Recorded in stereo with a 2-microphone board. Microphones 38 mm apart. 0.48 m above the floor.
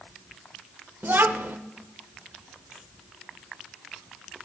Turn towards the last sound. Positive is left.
turn(degrees=-65)  # may be behind; listen again after turning